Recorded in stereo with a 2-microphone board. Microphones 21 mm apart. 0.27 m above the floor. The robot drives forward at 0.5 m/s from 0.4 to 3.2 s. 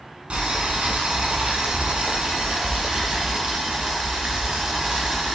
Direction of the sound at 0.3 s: 65° right (ahead or behind).